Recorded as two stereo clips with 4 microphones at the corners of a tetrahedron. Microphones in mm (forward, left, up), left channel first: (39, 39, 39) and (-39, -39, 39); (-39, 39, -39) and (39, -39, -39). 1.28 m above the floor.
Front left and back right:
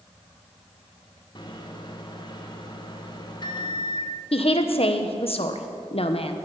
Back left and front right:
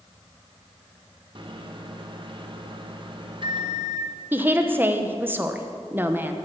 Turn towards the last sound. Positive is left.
turn(degrees=25)